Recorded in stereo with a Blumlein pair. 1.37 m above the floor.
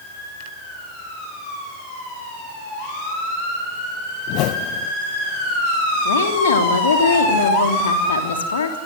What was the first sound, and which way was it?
A whoosh, 40° left.